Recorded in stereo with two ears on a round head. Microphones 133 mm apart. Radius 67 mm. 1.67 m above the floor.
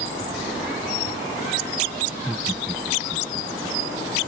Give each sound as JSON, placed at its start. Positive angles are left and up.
{"t": 2.1, "sound": "laughter", "side_deg": -15}